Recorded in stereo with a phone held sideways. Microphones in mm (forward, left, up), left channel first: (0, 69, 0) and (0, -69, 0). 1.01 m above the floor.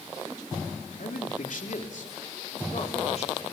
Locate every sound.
1.0 s a man speaking: 75° left (ahead or behind), 3 m; by 3.5 s 50° left (ahead or behind), 3.5 m